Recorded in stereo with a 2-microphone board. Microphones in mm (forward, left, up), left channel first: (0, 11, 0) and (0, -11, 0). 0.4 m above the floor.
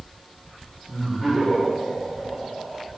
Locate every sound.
0.9 s laughter: 30° left (ahead or behind), 1.5 m; by 2.9 s 5° right (ahead or behind), 1.5 m